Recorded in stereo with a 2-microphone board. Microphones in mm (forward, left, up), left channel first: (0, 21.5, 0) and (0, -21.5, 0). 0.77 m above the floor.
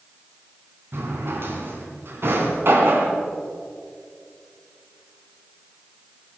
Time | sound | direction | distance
0.9 | a drawer | 60° right (ahead or behind) | 2.5 m